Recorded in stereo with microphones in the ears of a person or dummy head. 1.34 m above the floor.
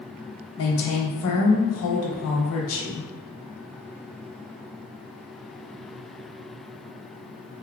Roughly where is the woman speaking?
Left.